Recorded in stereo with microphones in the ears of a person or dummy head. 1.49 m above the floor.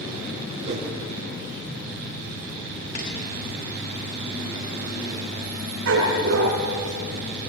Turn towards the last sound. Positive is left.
turn(degrees=-80)